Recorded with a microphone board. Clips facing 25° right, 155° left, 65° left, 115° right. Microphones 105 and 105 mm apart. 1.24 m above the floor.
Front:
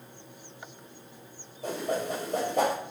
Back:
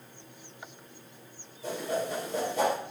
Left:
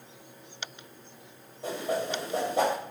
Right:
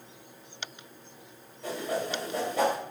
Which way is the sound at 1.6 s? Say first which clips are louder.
Front 1 dB, left 1 dB; 5° left.